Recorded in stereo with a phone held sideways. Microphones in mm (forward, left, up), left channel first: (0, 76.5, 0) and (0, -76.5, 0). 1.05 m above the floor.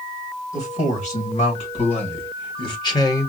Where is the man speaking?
50° left (ahead or behind), 3 m; by 3.3 s 20° left (ahead or behind), 1.1 m.